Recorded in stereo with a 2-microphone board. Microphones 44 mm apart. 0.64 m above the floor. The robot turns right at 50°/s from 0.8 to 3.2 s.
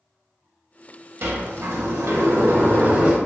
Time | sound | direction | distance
1.2 | a sliding door | 120° right | 0.8 m